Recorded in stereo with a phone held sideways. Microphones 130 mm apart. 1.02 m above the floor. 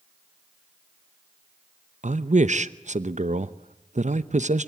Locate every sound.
2.0 s a man speaking: 65° right (ahead or behind), 0.8 m